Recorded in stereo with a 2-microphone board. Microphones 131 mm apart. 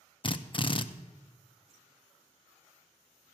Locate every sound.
0.2 s a drill: 40° left (ahead or behind), 0.5 m